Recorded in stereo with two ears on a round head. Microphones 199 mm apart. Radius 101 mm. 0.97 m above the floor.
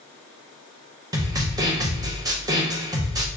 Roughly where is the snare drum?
Centre.